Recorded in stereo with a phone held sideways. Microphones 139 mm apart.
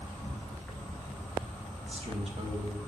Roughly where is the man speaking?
Right.